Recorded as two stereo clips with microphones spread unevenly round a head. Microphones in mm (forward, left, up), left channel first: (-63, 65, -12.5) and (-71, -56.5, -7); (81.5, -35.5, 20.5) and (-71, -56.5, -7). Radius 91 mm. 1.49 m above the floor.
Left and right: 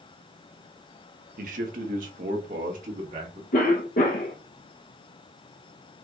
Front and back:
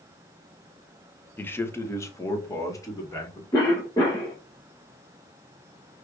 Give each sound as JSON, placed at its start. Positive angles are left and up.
{"t": 1.4, "sound": "a man speaking", "azimuth_deg": -70, "distance_m": 0.9}
{"t": 3.5, "sound": "a cough", "azimuth_deg": 75, "distance_m": 1.0}